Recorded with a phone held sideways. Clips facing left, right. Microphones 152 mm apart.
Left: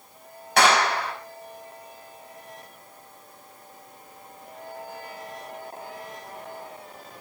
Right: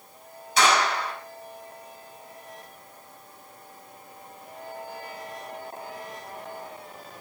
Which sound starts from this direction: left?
A clap, at 0.6 s.